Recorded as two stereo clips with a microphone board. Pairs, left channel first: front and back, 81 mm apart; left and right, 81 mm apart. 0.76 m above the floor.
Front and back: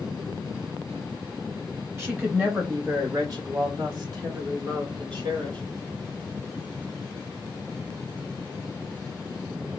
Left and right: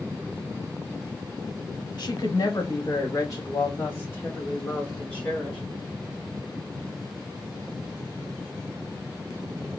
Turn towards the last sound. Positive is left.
turn(degrees=160)